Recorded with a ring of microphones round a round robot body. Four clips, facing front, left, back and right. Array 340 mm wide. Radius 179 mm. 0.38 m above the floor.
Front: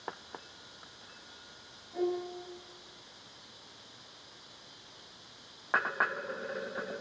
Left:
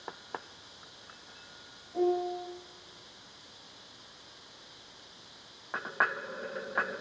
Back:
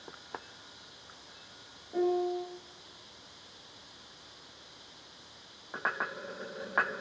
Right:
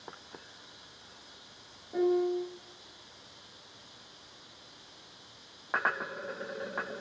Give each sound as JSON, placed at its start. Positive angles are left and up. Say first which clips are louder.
{"t": 1.9, "sound": "a piano", "louder": "right 2 dB, back 5 dB", "azimuth_deg": -125, "distance_m": 4.0}